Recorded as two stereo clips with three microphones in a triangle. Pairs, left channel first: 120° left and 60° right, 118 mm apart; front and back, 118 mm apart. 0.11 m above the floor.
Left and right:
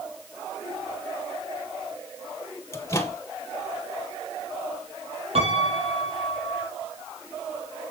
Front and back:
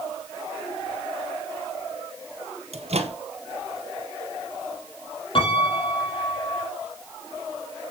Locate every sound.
2.7 s a microwave: straight behind, 2 m
5.3 s a piano: 40° right, 4 m